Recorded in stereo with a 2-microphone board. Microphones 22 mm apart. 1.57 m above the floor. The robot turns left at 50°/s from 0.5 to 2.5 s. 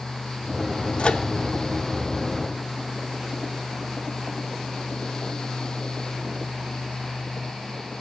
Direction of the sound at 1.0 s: 55° left (ahead or behind).